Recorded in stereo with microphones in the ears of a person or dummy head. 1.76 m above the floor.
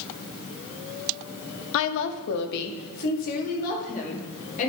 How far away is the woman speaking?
About 0.6 m.